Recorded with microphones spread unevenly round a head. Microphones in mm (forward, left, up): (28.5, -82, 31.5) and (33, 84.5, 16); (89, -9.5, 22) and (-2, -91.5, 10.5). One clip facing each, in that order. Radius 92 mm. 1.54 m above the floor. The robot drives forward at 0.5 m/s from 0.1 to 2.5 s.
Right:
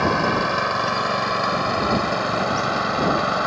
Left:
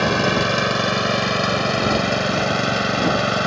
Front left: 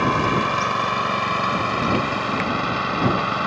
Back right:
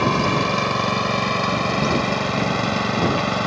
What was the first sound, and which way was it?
An engine running, 150° left.